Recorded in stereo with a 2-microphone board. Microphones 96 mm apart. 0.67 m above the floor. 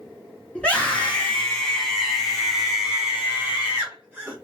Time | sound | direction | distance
0.6 | a scream | 10° left (ahead or behind) | 1.7 m